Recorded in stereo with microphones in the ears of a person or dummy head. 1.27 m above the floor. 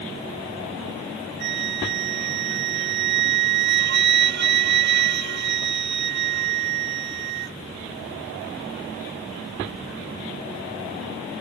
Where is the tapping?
No tapping in this recording.